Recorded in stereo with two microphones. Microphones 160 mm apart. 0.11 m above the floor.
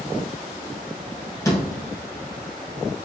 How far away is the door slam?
About 1.8 m.